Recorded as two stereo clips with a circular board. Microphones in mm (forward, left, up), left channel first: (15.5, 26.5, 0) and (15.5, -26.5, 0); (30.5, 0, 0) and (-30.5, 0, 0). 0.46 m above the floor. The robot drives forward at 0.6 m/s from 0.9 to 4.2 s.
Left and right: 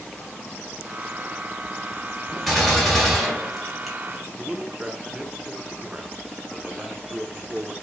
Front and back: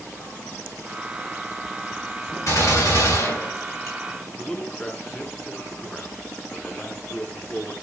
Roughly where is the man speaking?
Ahead right.